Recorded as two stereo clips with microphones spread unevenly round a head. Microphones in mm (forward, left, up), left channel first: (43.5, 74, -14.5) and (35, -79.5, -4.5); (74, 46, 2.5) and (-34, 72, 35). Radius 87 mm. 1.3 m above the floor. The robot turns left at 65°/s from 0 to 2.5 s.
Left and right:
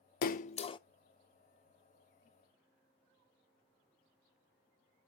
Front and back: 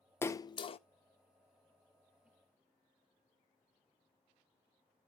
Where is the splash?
65° left, 0.5 m; by 0.8 s 25° left, 0.5 m.